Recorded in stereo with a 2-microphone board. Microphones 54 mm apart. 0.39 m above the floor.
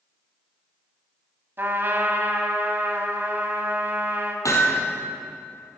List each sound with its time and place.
1.6 s a trumpet: 45° right (ahead or behind), 1.5 m
4.5 s hammering: 80° left, 2.5 m